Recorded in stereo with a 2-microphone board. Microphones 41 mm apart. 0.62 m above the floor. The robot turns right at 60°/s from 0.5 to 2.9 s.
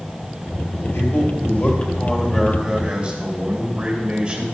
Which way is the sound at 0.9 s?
90° left.